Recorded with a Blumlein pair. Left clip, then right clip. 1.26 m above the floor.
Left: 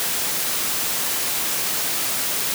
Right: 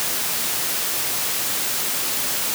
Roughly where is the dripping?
I don't hear dripping.